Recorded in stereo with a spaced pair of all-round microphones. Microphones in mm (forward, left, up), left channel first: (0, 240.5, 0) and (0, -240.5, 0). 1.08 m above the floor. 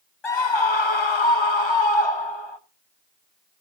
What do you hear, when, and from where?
0.2 s a scream: 60° left (ahead or behind), 1.1 m